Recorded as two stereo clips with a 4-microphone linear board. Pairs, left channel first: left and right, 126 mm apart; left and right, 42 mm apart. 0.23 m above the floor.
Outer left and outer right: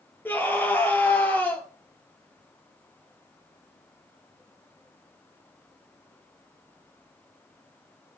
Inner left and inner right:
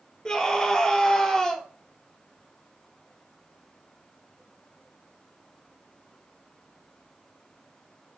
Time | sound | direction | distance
0.2 | a scream | 15° left (ahead or behind) | 5 m